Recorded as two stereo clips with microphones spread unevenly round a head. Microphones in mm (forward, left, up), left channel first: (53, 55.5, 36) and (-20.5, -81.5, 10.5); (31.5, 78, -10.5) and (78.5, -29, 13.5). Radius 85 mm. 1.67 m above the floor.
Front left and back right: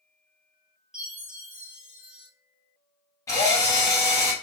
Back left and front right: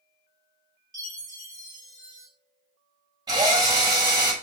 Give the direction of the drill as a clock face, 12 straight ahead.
12 o'clock.